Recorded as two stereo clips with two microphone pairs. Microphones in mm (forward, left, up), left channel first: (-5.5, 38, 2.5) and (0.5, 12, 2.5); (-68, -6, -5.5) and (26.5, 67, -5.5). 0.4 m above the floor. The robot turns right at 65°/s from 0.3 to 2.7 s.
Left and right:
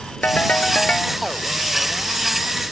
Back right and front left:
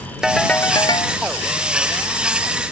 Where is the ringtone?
125° left; by 1.2 s straight behind.